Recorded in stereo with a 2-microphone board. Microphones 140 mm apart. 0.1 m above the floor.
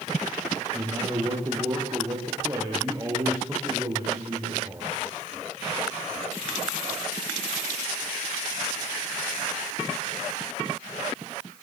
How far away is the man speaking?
About 8 m.